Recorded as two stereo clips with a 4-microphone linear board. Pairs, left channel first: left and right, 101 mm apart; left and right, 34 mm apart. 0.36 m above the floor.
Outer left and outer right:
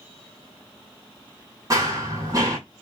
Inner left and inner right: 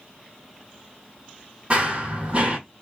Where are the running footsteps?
35° right (ahead or behind), 0.8 m.